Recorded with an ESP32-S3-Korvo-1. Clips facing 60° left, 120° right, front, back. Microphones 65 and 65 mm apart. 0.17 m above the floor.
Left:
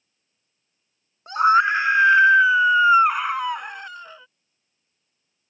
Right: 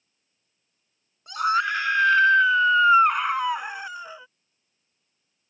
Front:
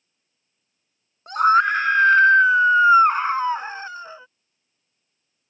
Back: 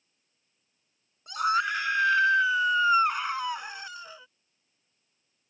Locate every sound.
1.3 s a scream: 20° left; by 4.3 s 45° right